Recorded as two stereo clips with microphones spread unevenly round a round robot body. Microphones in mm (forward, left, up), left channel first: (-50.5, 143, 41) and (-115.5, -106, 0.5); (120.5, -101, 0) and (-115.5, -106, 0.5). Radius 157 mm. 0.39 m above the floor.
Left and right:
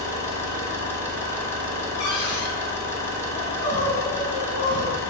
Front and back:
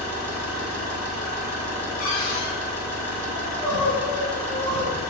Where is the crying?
110° left, 0.9 m.